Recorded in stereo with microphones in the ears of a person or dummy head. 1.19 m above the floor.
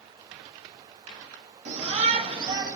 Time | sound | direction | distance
1.6 | a shout | 40° right (ahead or behind) | 2.5 m